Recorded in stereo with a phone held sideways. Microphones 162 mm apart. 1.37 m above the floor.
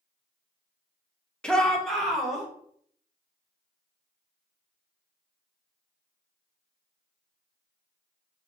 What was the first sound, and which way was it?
A shout, 5° left (ahead or behind).